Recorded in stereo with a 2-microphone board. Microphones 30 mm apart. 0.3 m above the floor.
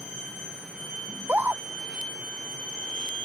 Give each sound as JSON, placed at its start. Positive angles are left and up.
{"t": 1.1, "sound": "a scream", "side_deg": -70}